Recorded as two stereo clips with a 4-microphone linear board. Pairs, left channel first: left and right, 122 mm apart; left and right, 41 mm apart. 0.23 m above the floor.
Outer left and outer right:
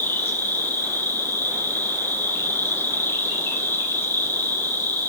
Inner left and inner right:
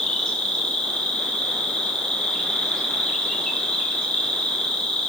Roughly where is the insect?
Centre.